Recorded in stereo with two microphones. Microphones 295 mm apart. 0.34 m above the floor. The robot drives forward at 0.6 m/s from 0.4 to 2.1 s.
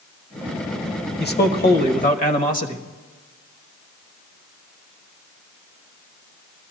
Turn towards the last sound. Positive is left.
turn(degrees=30)  # may be behind; listen again after turning